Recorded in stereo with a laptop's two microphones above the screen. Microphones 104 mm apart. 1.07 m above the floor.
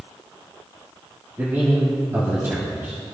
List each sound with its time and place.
1.4 s a man speaking: 25° right (ahead or behind), 1.7 m